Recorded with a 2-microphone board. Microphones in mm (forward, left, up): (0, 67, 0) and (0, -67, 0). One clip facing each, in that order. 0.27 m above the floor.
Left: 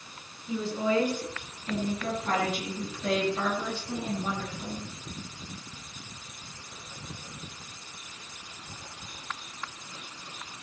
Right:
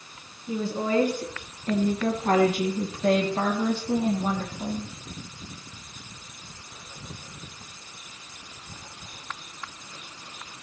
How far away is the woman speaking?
About 3 m.